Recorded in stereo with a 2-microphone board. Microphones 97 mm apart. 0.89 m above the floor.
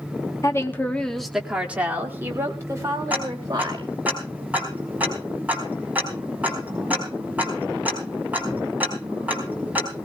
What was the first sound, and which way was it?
A woman speaking, 35° left (ahead or behind).